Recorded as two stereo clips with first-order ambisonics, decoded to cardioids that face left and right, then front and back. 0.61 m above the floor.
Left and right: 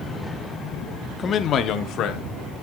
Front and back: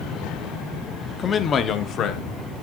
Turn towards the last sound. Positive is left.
turn(degrees=50)